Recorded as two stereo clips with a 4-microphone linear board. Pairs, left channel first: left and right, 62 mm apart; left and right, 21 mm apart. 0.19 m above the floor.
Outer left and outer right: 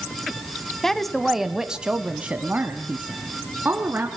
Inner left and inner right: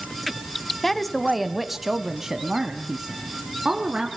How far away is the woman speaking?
About 1.0 m.